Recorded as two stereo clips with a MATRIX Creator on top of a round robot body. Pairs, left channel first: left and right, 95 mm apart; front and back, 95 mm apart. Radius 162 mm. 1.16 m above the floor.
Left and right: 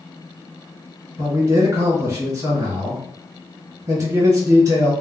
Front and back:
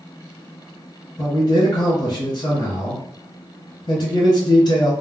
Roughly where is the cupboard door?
No cupboard door in this recording.